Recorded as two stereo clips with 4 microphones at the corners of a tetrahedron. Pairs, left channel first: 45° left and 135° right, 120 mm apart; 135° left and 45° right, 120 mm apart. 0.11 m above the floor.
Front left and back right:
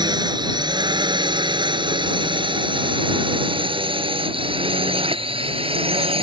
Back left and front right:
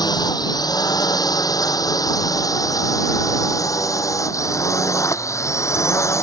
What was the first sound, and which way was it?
A drone, straight behind.